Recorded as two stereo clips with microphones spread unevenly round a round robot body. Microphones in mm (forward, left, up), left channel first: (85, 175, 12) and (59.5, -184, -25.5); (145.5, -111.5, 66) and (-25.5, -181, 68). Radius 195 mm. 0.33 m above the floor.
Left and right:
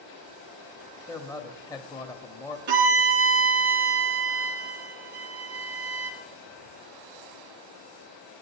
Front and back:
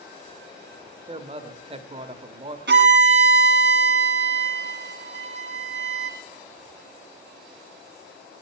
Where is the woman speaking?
170° left, 0.9 m.